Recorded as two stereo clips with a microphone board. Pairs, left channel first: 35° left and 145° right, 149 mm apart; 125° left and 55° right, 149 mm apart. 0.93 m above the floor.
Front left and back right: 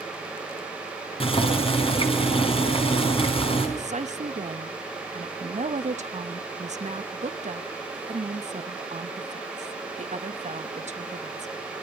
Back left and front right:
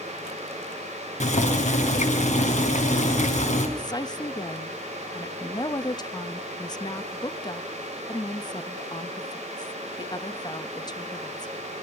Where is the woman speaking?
175° right, 1.2 m.